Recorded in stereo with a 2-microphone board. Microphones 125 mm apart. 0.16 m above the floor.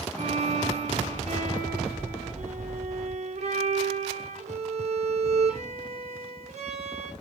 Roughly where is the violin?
Right.